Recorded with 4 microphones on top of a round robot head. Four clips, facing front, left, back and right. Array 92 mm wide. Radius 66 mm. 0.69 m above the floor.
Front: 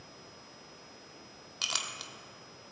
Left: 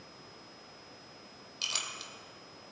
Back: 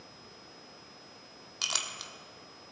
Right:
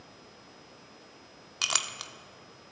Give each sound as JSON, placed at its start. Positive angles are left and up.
{"t": 1.6, "sound": "a clink", "azimuth_deg": -90, "distance_m": 0.8}